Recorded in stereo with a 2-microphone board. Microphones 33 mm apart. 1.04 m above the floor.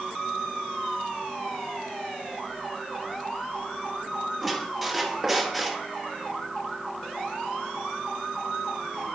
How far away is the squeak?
About 1.1 m.